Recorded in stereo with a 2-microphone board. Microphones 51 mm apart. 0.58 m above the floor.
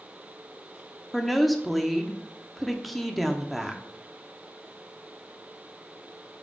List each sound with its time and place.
1.1 s a woman speaking: centre (ahead or behind), 0.9 m